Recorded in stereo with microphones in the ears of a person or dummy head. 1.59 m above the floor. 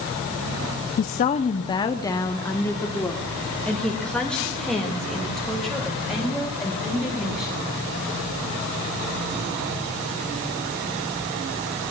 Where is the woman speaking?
45° left (ahead or behind), 0.6 m; by 7.7 s centre (ahead or behind), 4 m.